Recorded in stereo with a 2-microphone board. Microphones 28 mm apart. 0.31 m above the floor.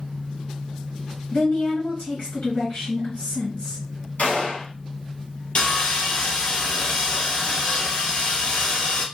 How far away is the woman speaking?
About 2.5 m.